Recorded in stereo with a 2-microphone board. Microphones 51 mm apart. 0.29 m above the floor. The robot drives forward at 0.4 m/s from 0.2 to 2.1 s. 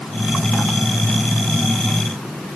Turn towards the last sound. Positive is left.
No sound to turn to.